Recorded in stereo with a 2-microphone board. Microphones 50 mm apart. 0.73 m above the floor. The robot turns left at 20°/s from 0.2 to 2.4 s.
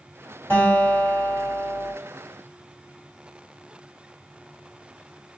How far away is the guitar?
About 1.5 m.